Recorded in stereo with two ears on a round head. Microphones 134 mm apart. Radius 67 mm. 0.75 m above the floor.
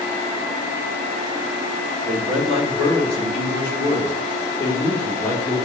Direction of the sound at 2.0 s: Centre (ahead or behind).